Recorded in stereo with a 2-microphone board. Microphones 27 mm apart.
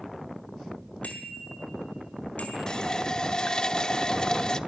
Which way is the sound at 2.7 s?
30° left (ahead or behind).